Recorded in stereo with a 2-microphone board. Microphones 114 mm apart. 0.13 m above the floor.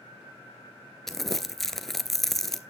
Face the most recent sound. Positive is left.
turn(degrees=0)  # may be behind; listen again after turning